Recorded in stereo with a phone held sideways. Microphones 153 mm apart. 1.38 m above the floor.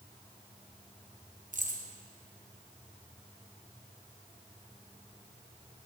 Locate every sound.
1.5 s keys jangling: 55° right (ahead or behind), 0.8 m